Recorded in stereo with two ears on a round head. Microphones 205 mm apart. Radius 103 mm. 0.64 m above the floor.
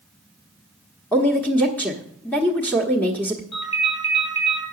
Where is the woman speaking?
5° left (ahead or behind), 1.2 m.